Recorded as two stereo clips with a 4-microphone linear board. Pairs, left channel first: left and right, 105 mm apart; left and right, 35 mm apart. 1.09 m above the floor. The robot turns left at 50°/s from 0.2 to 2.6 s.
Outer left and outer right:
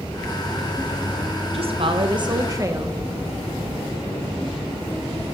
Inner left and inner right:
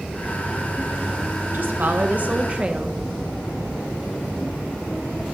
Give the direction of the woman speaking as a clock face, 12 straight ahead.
3 o'clock.